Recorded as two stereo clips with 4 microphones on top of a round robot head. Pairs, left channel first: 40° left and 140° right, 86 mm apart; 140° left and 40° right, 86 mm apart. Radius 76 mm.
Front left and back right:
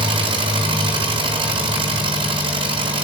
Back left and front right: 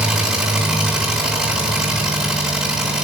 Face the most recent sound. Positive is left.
turn(degrees=-120)